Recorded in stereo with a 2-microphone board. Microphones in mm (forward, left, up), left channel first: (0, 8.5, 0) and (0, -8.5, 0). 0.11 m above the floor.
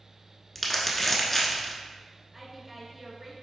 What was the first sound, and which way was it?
Crumpling, 10° left (ahead or behind).